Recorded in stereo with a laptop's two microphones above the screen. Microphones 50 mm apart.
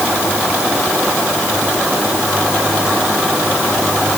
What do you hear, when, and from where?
Only background noise.